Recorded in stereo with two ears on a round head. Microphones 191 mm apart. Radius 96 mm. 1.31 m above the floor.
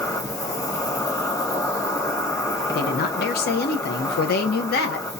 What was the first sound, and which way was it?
An insect, 15° left (ahead or behind).